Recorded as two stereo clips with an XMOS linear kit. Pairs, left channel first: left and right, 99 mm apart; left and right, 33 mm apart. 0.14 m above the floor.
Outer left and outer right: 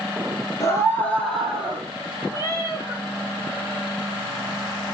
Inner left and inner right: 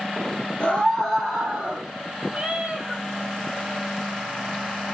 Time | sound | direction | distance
0.6 | a scream | 35° left (ahead or behind) | 2 m
2.3 | a cat meowing | 30° right (ahead or behind) | 2.0 m